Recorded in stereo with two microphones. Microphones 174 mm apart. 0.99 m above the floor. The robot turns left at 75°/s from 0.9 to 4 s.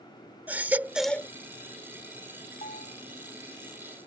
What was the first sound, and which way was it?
A baby crying, 10° right (ahead or behind).